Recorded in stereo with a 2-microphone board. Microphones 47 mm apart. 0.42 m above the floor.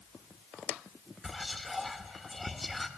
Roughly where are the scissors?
I don't hear scissors.